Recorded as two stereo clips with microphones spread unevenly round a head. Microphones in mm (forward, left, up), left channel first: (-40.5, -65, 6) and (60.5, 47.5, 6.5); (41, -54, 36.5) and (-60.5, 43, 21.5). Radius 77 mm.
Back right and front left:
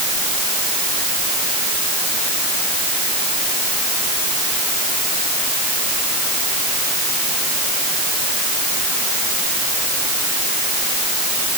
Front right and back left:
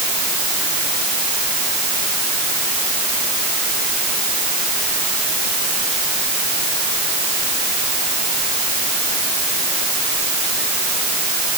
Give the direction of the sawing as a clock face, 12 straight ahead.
I don't hear sawing.